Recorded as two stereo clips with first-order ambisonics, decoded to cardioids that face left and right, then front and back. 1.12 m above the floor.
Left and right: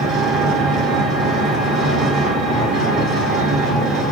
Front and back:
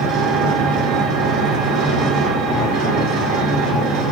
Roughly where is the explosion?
I don't hear an explosion.